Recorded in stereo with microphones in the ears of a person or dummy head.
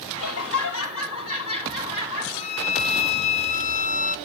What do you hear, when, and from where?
0.2 s laughter: 80° left, 4.5 m
2.4 s a violin: 40° left (ahead or behind), 0.7 m